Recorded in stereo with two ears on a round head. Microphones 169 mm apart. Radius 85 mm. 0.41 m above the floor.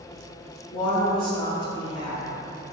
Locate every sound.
0.7 s a woman speaking: 25° left (ahead or behind), 1.1 m